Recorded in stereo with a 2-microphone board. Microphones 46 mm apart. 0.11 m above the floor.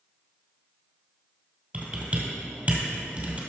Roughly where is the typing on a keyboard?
Right.